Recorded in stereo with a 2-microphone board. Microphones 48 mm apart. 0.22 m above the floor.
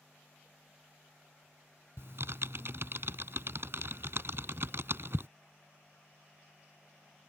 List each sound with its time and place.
2.0 s typing on a keyboard: 60° right (ahead or behind)